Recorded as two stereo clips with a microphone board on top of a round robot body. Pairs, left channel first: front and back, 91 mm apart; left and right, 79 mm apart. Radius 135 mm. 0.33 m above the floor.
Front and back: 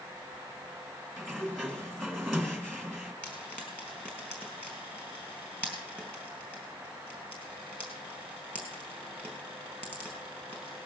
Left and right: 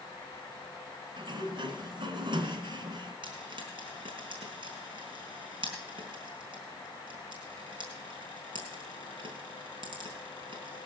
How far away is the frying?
About 4.5 m.